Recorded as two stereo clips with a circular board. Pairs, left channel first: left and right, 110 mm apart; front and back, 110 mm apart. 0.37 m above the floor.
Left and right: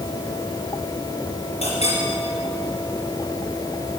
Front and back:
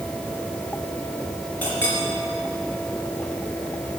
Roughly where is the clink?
Left.